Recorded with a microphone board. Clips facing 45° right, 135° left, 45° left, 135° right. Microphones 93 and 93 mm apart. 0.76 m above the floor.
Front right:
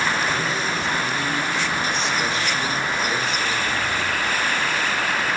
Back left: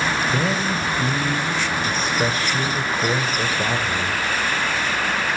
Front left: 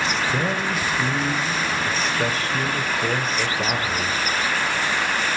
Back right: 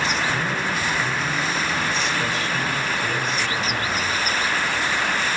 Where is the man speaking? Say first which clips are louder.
Back left 2 dB, front left 1 dB; 95° left, 2.5 m.